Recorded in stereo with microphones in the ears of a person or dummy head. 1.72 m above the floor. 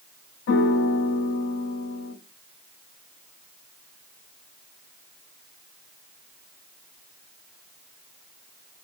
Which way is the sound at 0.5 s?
70° left (ahead or behind).